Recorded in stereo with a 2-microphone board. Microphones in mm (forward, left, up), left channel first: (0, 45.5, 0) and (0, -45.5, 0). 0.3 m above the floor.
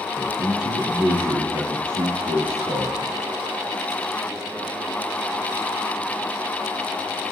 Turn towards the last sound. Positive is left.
turn(degrees=-80)